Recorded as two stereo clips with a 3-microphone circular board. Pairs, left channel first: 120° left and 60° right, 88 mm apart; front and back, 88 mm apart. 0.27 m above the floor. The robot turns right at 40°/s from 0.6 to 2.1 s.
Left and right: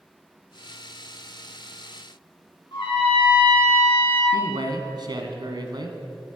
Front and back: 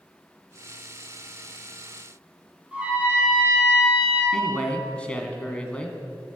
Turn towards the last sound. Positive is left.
turn(degrees=-75)